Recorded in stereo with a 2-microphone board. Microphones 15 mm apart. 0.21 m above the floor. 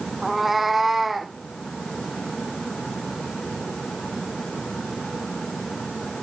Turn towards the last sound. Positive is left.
turn(degrees=-10)  # may be behind; listen again after turning